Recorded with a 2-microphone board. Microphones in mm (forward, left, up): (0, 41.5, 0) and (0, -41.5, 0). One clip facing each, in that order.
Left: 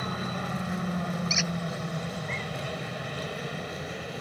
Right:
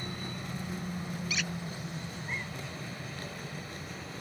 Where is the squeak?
10° left (ahead or behind).